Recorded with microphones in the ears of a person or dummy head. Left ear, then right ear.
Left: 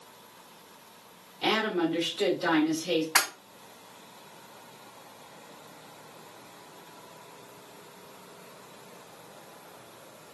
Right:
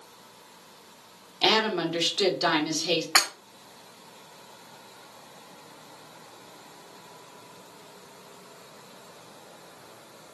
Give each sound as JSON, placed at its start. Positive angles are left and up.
{"t": 1.4, "sound": "a woman speaking", "side_deg": -30, "distance_m": 1.2}
{"t": 3.1, "sound": "breaking glass", "side_deg": -30, "distance_m": 3.0}